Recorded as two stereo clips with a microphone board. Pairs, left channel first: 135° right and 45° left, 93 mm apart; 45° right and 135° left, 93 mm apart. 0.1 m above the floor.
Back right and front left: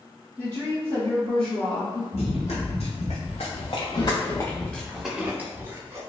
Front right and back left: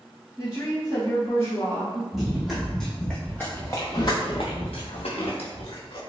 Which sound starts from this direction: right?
A woman speaking, at 0.4 s.